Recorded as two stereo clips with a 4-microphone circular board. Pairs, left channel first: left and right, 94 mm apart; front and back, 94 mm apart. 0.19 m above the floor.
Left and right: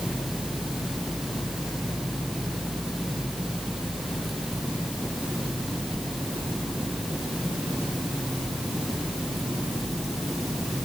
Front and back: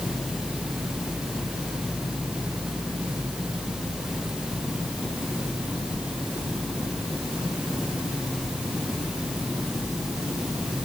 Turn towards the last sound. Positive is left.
No sound to turn to.